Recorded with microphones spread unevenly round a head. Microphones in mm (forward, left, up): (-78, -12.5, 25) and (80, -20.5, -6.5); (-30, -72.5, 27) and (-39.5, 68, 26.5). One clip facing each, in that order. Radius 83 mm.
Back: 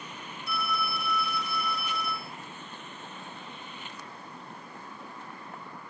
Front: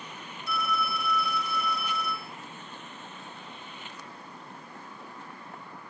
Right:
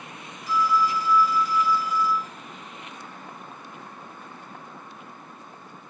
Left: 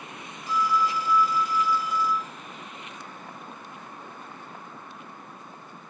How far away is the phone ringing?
About 1.1 m.